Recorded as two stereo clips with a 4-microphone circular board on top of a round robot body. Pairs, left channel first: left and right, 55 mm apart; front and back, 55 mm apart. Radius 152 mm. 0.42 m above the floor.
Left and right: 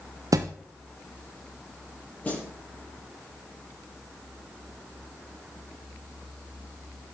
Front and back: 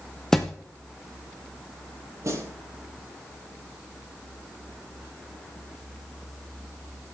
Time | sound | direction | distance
0.3 | a thud | 80° right | 0.9 m
2.2 | a snare drum | 150° left | 6.5 m